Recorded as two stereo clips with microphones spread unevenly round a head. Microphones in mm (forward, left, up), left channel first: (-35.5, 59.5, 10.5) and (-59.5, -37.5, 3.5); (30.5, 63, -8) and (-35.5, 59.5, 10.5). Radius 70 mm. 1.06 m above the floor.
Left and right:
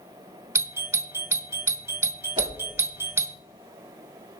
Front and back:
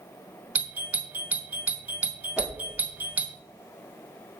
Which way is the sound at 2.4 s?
75° right.